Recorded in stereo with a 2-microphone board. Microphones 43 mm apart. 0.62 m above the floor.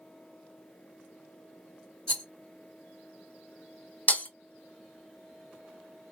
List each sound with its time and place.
2.1 s a rattle: 15° left (ahead or behind), 3 m
4.1 s breaking glass: 40° left (ahead or behind), 0.6 m